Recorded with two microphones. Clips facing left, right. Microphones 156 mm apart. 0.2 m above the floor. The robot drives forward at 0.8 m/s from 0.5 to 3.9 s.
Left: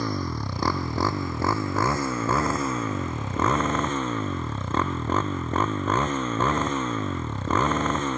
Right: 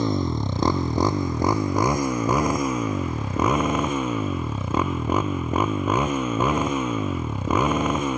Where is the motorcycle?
25° right (ahead or behind); by 8.2 s 10° right (ahead or behind).